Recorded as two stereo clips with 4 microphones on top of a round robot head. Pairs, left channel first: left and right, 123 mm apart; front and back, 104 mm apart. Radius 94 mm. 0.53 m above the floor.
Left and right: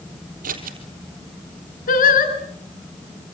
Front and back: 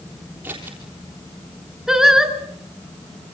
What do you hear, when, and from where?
0.4 s scissors: 100° right, 3.5 m
1.9 s singing: 95° left, 4 m